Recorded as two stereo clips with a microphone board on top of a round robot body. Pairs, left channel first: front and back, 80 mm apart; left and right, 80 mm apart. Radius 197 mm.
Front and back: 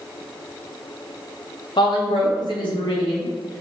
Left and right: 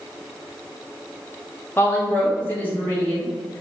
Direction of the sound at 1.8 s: 25° left.